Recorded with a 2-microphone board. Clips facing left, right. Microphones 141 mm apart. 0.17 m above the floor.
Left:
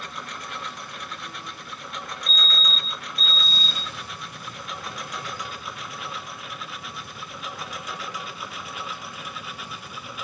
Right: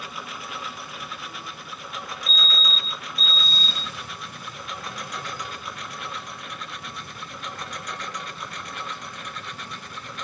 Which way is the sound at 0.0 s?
5° right (ahead or behind).